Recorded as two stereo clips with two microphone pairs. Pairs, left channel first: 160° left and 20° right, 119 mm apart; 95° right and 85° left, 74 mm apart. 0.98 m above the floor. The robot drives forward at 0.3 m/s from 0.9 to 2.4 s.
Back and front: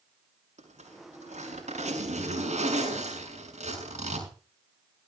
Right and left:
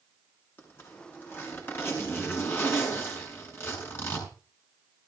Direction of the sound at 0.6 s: 35° right.